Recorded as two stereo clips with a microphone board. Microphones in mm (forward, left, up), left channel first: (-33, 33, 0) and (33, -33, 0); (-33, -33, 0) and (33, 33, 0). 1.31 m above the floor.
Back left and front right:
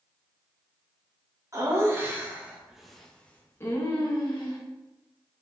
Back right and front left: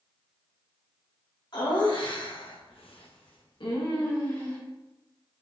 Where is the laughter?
100° right, 2.0 m; by 4.6 s 170° left, 1.8 m.